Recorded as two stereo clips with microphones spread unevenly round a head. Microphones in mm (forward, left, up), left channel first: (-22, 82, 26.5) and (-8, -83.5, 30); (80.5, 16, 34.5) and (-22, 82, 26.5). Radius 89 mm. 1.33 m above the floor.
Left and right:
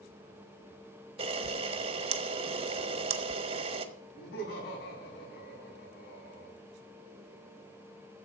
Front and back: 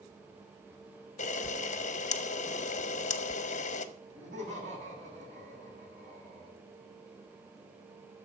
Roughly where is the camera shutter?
Ahead right.